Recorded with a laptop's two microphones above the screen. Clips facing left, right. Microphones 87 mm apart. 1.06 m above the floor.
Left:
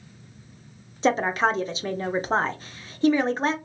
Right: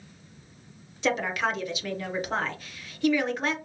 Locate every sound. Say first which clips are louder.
1.0 s a woman speaking: left 5 dB; 30° left (ahead or behind), 0.6 m